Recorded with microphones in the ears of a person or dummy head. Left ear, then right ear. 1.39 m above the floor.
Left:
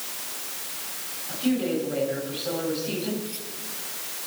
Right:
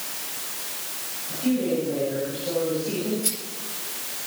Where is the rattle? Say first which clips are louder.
Right 6 dB; 90° right, 8.5 m.